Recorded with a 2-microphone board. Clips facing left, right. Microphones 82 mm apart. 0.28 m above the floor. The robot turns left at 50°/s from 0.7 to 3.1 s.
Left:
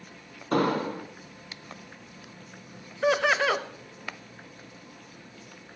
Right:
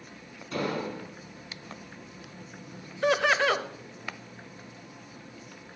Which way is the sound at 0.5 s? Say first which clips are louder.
Left 6 dB; 55° left (ahead or behind).